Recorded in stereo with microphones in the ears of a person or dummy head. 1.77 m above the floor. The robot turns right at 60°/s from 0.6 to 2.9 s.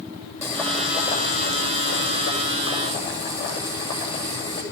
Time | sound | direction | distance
0.4 | boiling | 15° left | 10 m